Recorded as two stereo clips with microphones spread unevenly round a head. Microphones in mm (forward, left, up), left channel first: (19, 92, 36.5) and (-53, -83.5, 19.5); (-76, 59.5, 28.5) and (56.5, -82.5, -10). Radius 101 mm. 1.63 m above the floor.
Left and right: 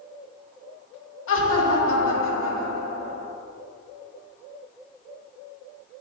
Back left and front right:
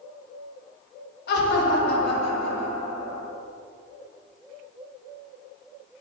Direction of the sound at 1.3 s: 90° left.